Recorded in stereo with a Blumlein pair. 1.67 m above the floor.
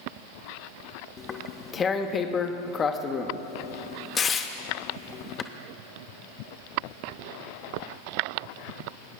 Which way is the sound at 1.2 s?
20° left.